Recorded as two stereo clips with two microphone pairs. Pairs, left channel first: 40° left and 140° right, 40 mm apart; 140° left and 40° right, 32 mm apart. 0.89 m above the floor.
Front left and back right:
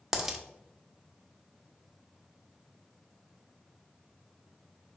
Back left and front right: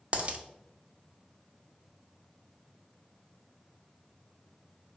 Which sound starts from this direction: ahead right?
A dropped coin, at 0.1 s.